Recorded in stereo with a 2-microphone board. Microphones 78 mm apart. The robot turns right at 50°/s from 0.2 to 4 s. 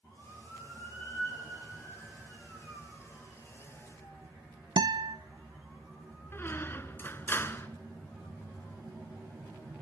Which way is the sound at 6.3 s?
30° left (ahead or behind).